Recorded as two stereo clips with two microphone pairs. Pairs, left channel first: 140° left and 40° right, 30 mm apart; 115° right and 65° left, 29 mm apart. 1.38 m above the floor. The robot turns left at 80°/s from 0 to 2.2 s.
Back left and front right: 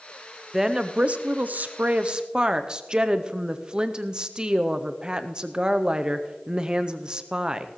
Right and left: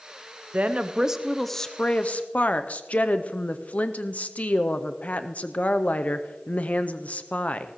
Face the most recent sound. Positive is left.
turn(degrees=-90)